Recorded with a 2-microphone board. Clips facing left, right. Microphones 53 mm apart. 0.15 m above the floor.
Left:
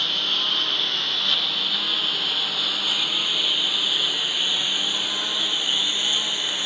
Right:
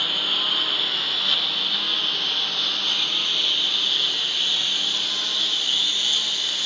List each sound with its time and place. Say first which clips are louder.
0.0 s a lawn mower: even; 5° right (ahead or behind); by 6.7 s 20° left (ahead or behind)